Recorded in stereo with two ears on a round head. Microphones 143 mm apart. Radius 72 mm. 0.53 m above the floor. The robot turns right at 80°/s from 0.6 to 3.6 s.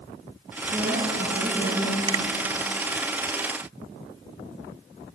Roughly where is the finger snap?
Right.